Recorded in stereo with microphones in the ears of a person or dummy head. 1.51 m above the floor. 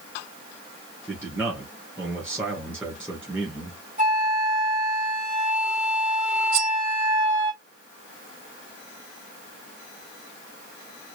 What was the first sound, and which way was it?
A man speaking, 5° right (ahead or behind).